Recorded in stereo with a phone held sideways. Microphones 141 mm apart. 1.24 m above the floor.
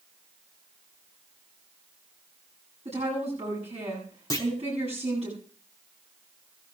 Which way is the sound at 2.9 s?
55° right (ahead or behind).